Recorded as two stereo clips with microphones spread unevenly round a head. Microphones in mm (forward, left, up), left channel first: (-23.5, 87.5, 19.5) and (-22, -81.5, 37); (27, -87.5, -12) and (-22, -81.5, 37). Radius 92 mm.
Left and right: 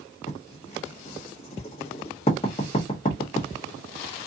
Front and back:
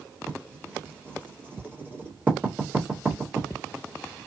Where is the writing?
145° left, 1.2 m.